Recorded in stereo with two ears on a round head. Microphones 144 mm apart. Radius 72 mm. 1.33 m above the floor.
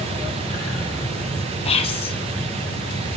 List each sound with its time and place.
1.6 s whispering: 35° left (ahead or behind), 0.8 m